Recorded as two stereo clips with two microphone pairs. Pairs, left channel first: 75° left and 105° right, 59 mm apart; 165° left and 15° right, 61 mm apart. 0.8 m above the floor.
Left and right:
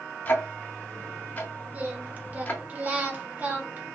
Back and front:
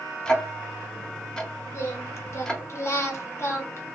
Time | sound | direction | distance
0.2 | ticking | 90° left | 0.6 m
1.7 | singing | 160° right | 0.6 m